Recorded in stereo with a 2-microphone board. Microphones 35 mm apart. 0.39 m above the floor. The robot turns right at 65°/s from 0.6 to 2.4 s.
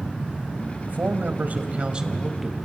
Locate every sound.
0.9 s a man speaking: 105° right, 1.8 m; by 2.5 s 5° right, 1.8 m